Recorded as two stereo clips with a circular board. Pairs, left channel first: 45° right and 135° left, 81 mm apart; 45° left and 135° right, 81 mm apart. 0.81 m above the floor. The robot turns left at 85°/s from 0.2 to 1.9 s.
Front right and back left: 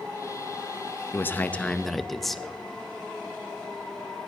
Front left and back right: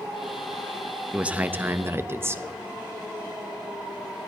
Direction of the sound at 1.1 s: 65° right.